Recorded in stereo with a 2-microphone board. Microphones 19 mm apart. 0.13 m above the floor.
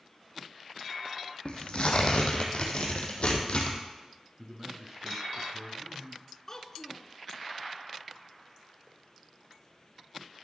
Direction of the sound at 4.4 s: 20° right (ahead or behind).